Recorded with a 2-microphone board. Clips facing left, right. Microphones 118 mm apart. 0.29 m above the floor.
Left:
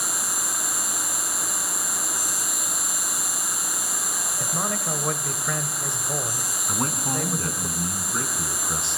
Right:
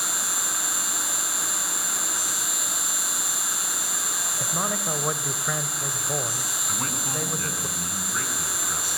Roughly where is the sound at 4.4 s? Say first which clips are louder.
Even; centre.